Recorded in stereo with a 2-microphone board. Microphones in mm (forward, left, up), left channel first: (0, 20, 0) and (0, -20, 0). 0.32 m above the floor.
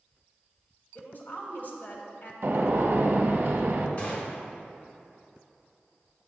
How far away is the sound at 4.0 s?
About 1.3 m.